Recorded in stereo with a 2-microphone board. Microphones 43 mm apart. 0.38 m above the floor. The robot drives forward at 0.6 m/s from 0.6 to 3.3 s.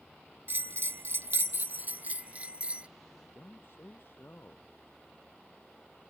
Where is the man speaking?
60° left (ahead or behind).